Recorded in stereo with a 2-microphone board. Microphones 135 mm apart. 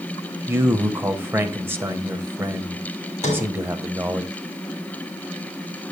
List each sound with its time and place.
0.5 s a man speaking: 15° right (ahead or behind), 1.0 m
3.2 s a sliding door: 55° left (ahead or behind), 3.5 m